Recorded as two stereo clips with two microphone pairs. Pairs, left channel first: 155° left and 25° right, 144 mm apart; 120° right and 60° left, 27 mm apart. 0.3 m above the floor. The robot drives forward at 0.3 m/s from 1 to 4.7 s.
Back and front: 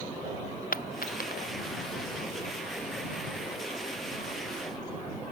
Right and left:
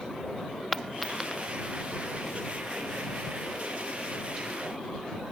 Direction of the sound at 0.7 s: 150° left.